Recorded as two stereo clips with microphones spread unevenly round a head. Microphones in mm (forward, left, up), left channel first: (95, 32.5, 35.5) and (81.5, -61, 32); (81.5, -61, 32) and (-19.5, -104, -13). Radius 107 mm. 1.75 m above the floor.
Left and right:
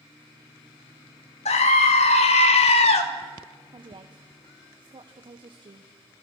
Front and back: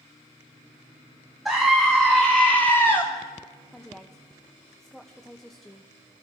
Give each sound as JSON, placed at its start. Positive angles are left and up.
{"t": 1.4, "sound": "a scream", "azimuth_deg": 110, "distance_m": 2.5}
{"t": 3.7, "sound": "a woman speaking", "azimuth_deg": -60, "distance_m": 1.5}